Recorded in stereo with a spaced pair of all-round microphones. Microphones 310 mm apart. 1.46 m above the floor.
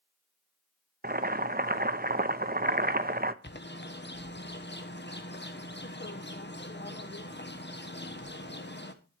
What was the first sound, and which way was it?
Boiling, 30° right (ahead or behind).